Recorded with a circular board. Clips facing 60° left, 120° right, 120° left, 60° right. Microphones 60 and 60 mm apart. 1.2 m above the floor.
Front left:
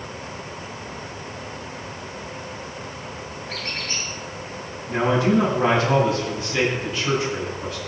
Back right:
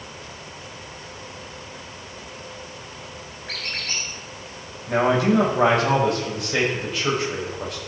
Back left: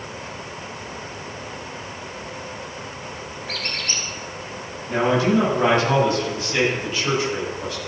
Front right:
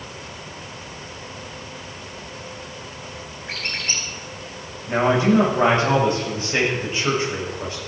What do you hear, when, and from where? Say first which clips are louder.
3.5 s a squeak: back right 1 dB, front right 1 dB; 125° right, 3.5 m
4.9 s a man speaking: back right 1 dB, front right 1 dB; 120° right, 7.5 m